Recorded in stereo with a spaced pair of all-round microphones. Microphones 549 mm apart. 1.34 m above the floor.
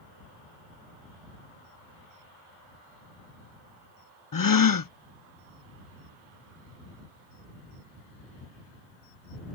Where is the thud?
I don't hear a thud.